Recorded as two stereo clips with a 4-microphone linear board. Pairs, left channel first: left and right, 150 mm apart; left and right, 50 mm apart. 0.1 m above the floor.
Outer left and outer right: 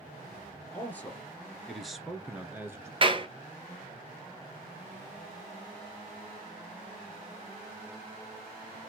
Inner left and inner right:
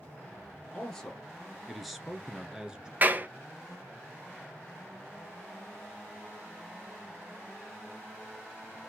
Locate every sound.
0.7 s a man speaking: 10° left (ahead or behind), 1.9 m; by 2.9 s 20° right (ahead or behind), 1.2 m
3.0 s a clap: 35° right (ahead or behind), 1.2 m